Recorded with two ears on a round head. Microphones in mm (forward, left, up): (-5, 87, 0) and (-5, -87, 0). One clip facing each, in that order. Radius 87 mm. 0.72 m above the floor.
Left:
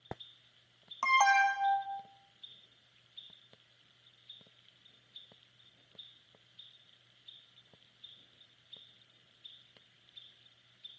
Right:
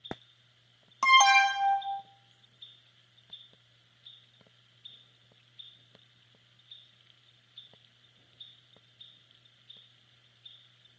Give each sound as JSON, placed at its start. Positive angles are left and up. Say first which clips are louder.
{"t": 1.0, "sound": "an alarm", "louder": "right 4 dB", "side_deg": -45, "distance_m": 0.6}